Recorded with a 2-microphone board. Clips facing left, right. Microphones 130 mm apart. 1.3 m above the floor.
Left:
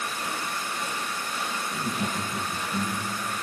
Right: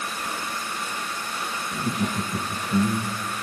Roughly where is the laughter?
Centre.